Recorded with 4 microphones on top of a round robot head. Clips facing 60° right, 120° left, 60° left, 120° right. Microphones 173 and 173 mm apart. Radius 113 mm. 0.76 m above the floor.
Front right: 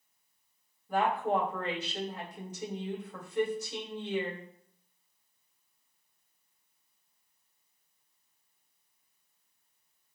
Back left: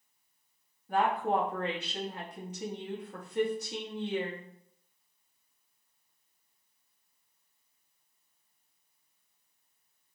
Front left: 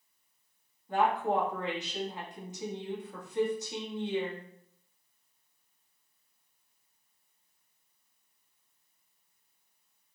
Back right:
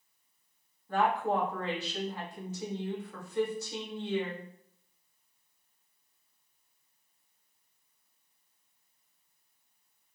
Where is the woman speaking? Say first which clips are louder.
Even, front left 1 dB; 130° left, 1.5 m.